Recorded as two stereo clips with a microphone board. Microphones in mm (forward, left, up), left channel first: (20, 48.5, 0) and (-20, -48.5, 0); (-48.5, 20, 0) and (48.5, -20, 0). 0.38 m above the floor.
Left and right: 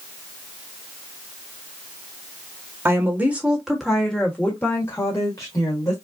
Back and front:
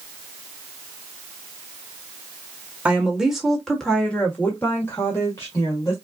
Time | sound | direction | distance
2.9 | a woman speaking | 90° right | 1.4 m